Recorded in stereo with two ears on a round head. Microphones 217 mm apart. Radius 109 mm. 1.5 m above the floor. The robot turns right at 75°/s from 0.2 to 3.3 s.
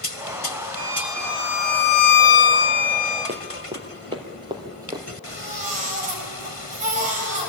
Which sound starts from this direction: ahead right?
A violin, at 0.8 s.